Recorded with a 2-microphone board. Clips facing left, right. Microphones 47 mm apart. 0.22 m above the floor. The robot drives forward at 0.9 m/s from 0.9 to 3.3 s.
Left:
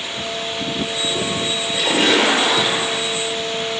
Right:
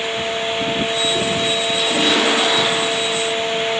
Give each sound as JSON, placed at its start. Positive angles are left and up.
{"t": 1.7, "sound": "a splash", "side_deg": 55, "distance_m": 5.0}